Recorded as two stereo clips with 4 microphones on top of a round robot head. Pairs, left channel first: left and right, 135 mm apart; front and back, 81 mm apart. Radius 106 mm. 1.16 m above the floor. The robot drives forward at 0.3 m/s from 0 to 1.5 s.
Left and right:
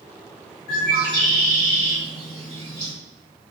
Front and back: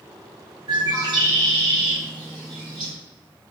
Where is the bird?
145° left, 0.9 m; by 2.9 s 155° left, 1.1 m.